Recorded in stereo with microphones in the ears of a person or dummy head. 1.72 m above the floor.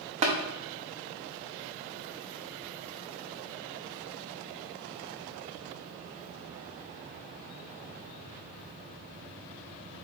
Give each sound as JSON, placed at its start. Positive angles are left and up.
{"t": 0.2, "sound": "tapping", "side_deg": -30, "distance_m": 0.7}